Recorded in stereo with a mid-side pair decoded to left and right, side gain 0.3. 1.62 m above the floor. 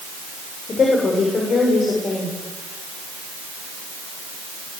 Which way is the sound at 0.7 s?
65° left.